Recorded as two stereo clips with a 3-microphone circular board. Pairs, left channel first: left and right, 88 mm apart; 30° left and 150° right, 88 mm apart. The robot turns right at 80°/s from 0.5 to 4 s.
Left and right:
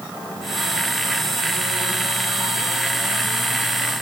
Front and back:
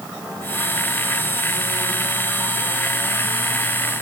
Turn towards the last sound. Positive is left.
No sound to turn to.